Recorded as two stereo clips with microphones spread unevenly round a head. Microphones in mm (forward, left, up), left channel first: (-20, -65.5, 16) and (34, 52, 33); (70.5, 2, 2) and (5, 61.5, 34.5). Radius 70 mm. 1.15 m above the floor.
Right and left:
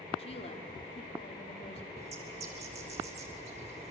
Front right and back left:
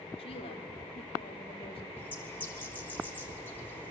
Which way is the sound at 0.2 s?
70° right.